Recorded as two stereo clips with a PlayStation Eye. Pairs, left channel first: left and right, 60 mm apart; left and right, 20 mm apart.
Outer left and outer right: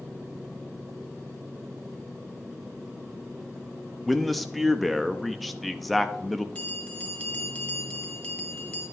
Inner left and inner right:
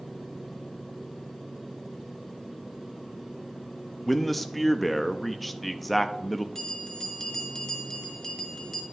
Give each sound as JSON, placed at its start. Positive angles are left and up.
{"t": 4.1, "sound": "a man speaking", "side_deg": 0, "distance_m": 0.6}
{"t": 6.5, "sound": "a bell", "side_deg": 20, "distance_m": 1.8}